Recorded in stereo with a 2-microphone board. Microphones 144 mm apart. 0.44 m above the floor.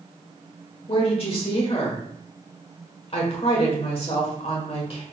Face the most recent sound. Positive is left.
turn(degrees=40)  # may be behind; listen again after turning